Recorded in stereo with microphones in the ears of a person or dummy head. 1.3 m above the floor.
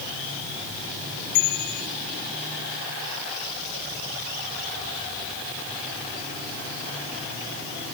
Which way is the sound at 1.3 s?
55° left (ahead or behind).